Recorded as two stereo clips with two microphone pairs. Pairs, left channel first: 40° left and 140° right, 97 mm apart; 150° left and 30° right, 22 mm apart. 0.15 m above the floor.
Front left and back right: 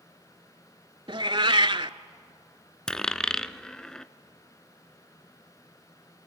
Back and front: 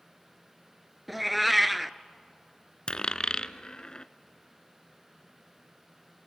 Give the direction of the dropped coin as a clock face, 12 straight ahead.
8 o'clock.